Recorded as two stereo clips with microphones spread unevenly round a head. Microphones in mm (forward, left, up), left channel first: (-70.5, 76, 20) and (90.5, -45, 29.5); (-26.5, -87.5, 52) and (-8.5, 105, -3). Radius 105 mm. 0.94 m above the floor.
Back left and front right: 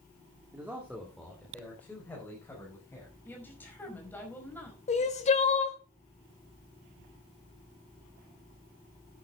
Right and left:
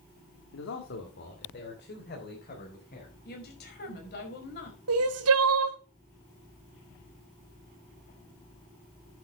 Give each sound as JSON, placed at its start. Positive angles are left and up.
{"t": 0.5, "sound": "a man speaking", "azimuth_deg": -115, "distance_m": 2.0}
{"t": 3.2, "sound": "a woman speaking", "azimuth_deg": -135, "distance_m": 5.0}
{"t": 4.9, "sound": "crying", "azimuth_deg": 85, "distance_m": 1.7}